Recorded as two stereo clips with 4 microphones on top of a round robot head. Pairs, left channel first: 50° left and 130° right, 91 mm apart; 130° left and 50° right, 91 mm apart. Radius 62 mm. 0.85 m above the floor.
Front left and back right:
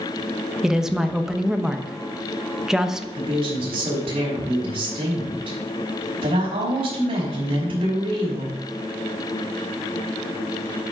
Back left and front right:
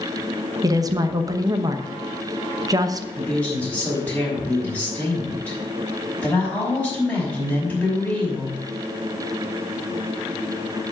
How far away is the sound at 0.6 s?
About 1.1 m.